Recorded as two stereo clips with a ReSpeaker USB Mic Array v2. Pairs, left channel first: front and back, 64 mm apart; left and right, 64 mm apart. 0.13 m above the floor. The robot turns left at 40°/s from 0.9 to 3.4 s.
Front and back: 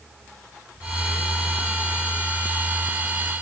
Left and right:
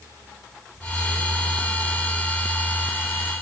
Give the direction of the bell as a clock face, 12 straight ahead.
No bell in this recording.